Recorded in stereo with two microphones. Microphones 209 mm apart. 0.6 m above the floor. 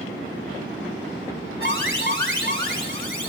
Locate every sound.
1.6 s an alarm: 60° right (ahead or behind), 4 m